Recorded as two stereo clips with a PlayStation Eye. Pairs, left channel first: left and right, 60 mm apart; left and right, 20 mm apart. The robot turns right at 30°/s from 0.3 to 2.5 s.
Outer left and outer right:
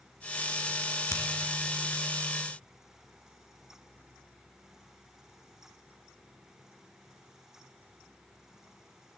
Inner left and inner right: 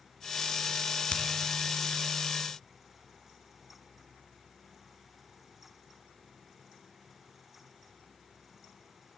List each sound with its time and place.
1.1 s a finger snap: 60° left (ahead or behind), 1.9 m